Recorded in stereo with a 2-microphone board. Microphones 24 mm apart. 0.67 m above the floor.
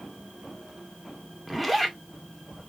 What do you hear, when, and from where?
1.5 s a zipper: centre (ahead or behind), 0.6 m